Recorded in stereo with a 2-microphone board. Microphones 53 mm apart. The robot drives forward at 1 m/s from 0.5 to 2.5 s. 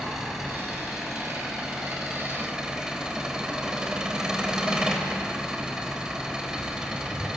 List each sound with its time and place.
0.0 s an engine running: 10° right (ahead or behind), 5.5 m; by 7.4 s 15° right (ahead or behind), 3.5 m